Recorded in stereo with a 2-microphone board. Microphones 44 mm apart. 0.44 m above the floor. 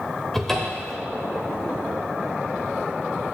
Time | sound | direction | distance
0.3 | a cupboard door | 10° left (ahead or behind) | 0.9 m